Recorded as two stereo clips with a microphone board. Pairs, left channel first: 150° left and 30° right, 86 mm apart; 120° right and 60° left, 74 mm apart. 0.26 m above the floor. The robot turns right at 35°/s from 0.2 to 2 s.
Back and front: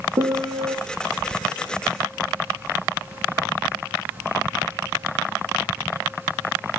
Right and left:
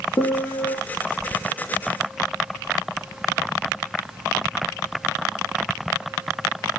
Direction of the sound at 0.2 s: 70° right.